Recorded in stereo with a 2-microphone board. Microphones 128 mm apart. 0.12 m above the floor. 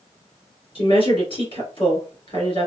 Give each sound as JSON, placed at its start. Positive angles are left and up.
{"t": 0.8, "sound": "a woman speaking", "side_deg": 45, "distance_m": 2.0}